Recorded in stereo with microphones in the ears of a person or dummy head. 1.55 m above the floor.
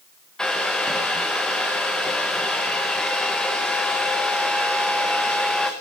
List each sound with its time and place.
0.4 s a hair dryer: centre (ahead or behind), 0.8 m